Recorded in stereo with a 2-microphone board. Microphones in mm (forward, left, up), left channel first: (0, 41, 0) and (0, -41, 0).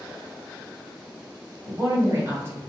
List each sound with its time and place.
1.6 s a woman speaking: 30° right (ahead or behind), 1.5 m